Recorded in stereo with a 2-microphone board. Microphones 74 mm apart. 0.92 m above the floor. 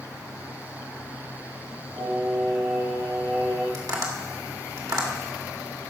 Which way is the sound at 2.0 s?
85° right.